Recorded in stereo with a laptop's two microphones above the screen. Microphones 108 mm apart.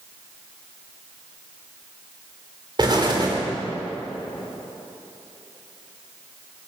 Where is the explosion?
45° right (ahead or behind), 3 m.